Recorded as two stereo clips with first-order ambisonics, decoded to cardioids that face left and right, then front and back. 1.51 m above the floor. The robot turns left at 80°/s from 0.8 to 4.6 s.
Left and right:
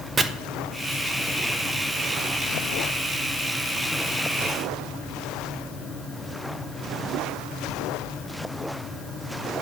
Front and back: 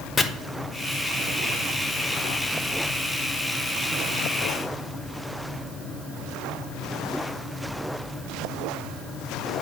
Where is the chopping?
35° right, 0.5 m.